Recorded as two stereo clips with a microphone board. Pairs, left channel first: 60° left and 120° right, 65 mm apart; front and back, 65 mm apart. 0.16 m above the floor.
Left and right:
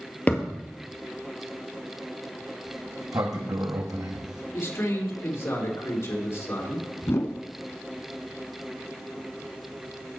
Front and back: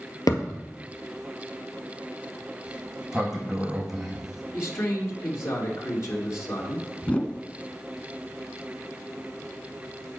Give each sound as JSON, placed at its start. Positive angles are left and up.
{"t": 0.3, "sound": "a thud", "azimuth_deg": -5, "distance_m": 1.8}
{"t": 2.7, "sound": "a sliding door", "azimuth_deg": -95, "distance_m": 1.6}
{"t": 4.5, "sound": "a man speaking", "azimuth_deg": 25, "distance_m": 3.0}
{"t": 7.0, "sound": "a whoosh", "azimuth_deg": 55, "distance_m": 0.5}